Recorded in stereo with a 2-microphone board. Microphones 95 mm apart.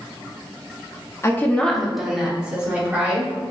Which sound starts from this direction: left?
A woman speaking, at 1.2 s.